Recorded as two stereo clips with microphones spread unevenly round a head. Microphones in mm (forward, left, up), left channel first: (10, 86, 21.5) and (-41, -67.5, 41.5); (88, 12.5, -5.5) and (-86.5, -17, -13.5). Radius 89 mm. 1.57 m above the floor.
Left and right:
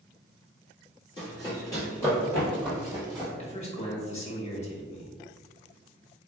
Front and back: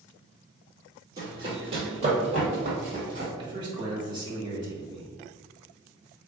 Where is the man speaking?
125° left, 1.4 m.